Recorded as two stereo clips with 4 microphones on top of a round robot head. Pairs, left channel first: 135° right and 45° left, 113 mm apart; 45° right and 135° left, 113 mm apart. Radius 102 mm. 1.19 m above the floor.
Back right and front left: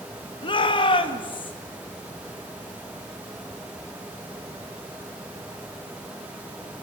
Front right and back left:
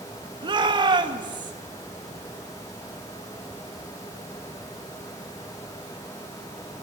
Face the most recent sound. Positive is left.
turn(degrees=-175)